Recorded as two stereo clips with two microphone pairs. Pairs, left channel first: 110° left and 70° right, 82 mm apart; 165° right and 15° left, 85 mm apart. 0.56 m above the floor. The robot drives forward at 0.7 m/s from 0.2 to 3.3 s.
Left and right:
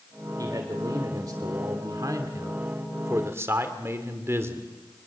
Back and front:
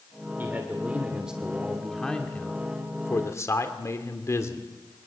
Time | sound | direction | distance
0.4 | a man speaking | 45° right | 2 m